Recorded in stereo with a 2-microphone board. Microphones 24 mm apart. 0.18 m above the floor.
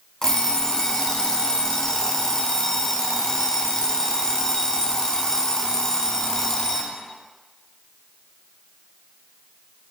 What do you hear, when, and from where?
0.2 s an alarm clock: 30° left (ahead or behind), 0.5 m